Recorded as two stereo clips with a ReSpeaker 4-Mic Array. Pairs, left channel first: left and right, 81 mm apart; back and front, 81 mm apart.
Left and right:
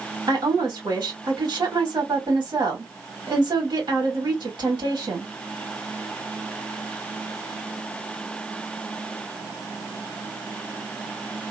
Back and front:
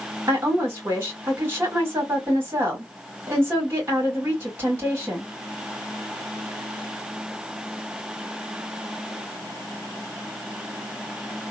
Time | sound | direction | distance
0.3 | a woman speaking | 60° right | 1.9 m